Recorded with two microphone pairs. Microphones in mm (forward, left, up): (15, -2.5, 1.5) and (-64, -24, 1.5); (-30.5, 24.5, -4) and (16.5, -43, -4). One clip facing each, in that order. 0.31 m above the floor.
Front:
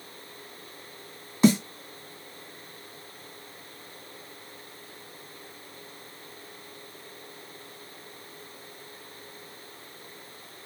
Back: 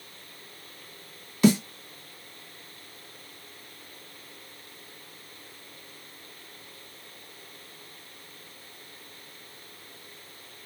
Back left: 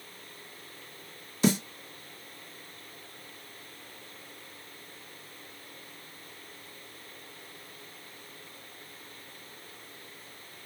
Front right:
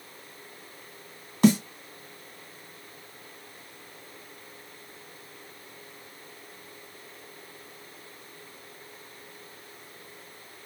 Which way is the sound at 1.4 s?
45° right.